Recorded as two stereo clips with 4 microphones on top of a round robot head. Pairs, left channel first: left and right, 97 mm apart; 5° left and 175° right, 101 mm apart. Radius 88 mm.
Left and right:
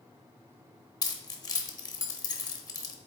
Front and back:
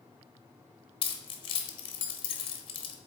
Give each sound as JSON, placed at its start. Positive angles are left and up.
{"t": 1.0, "sound": "keys jangling", "azimuth_deg": 40, "distance_m": 0.9}